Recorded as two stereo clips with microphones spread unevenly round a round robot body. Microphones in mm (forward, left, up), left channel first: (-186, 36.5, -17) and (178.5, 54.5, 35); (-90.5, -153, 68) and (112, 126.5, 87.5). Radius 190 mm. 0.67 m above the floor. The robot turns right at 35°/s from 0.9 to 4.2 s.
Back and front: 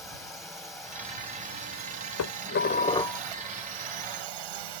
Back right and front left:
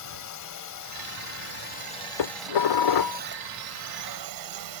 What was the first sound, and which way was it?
A drone, 90° right.